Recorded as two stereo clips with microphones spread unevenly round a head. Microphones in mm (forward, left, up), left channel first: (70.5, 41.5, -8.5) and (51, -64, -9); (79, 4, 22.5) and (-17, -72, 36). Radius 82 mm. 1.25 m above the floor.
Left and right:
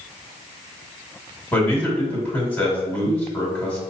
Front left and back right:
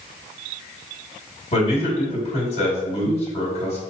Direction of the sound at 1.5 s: 5° left.